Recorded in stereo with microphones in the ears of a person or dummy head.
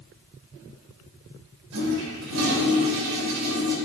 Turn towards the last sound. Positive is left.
turn(degrees=-80)